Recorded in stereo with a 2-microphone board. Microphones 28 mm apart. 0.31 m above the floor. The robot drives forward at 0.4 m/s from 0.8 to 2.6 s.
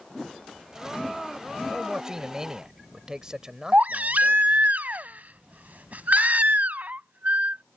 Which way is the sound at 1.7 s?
20° right (ahead or behind).